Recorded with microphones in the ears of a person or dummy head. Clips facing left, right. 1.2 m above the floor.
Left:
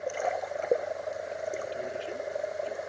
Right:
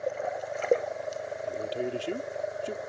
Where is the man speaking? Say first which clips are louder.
Right 5 dB; 55° right (ahead or behind).